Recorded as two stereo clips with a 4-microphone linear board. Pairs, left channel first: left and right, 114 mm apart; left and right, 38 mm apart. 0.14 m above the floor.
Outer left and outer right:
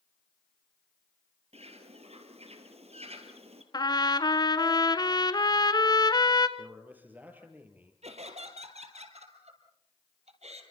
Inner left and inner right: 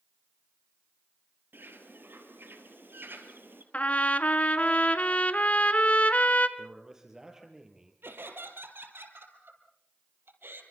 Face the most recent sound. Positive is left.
turn(degrees=-70)  # may be behind; listen again after turning